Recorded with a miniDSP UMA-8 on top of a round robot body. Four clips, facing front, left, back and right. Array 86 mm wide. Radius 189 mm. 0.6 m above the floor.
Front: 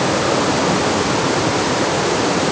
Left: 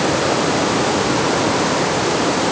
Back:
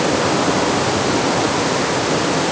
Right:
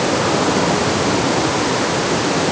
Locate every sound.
Only background noise.